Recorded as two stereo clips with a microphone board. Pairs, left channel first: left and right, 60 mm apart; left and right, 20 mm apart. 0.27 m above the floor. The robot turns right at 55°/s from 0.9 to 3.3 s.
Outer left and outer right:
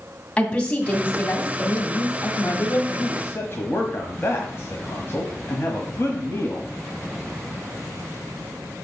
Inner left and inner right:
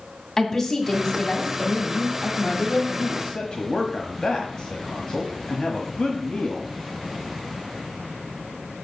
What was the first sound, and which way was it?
A woman speaking, 20° left.